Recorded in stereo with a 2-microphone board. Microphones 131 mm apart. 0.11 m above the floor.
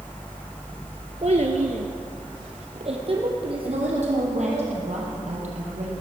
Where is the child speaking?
50° right (ahead or behind), 1.1 m; by 4.7 s 40° right (ahead or behind), 3.5 m.